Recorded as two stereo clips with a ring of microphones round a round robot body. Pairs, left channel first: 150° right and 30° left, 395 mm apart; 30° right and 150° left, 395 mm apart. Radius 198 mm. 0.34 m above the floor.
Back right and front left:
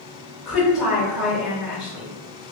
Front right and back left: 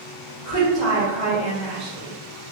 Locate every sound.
0.5 s a woman speaking: 120° left, 1.3 m